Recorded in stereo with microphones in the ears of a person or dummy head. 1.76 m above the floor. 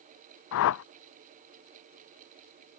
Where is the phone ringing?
No phone ringing in this recording.